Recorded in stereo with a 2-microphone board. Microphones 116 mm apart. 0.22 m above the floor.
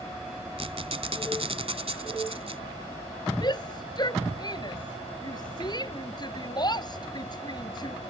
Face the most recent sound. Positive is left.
turn(degrees=40)  # may be behind; listen again after turning